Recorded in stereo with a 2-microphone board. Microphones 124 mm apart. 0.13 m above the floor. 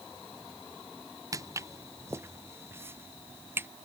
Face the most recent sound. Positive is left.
turn(degrees=-20)  # may be behind; listen again after turning